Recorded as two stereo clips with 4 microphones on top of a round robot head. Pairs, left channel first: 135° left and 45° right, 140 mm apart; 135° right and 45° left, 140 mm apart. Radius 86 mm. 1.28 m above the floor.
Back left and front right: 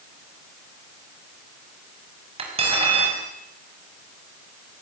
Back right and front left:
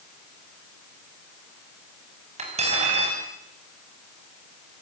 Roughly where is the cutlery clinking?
Ahead.